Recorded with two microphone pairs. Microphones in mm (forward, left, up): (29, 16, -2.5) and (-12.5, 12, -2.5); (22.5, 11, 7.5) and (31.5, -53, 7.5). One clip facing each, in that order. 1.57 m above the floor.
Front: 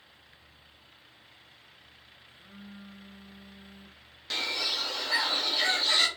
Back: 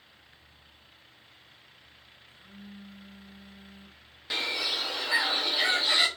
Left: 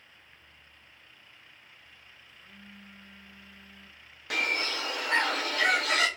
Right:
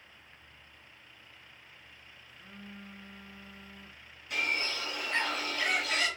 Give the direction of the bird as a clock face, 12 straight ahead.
8 o'clock.